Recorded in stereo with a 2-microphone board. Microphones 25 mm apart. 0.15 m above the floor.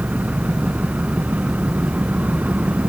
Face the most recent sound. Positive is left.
turn(degrees=-75)  # may be behind; listen again after turning